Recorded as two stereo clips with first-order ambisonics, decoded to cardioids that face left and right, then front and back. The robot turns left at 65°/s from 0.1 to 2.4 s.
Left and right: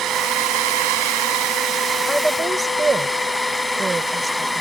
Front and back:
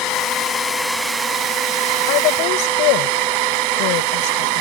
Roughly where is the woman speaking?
Ahead.